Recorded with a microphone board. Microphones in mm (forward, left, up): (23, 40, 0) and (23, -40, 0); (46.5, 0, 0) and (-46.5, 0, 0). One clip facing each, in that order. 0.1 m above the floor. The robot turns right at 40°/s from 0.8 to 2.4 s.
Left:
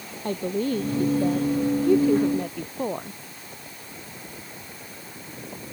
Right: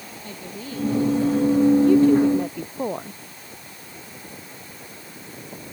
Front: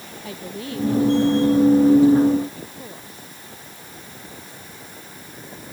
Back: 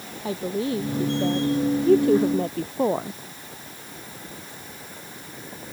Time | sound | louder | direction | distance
0.2 | a woman speaking | left 11 dB, back 7 dB | 120° left | ?